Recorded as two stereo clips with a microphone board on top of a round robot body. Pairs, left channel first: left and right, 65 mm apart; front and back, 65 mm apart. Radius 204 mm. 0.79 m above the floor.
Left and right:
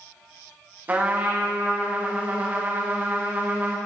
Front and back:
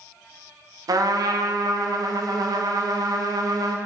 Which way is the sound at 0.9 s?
155° right.